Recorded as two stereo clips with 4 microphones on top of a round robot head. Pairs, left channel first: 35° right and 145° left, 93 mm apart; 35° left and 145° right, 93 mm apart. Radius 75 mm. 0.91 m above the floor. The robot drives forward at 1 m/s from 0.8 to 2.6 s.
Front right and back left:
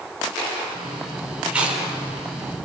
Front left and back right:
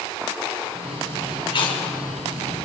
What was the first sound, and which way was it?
Chewing, 65° left.